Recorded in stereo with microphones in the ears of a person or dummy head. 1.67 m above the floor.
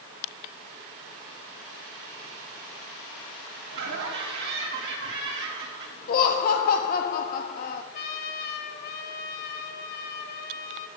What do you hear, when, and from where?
3.7 s laughter: 65° right (ahead or behind), 4.5 m
6.1 s laughter: 45° left (ahead or behind), 0.8 m
7.9 s a trumpet: 50° left (ahead or behind), 1.5 m